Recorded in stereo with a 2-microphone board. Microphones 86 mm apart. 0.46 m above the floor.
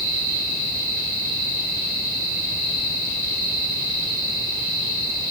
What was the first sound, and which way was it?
Only background noise.